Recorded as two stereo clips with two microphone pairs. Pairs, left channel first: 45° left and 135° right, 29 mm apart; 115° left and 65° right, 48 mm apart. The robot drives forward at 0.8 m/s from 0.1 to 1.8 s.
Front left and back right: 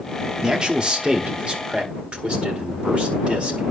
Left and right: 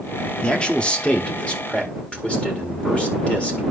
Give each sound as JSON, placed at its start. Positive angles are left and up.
{"t": 0.4, "sound": "a man speaking", "azimuth_deg": 175, "distance_m": 1.2}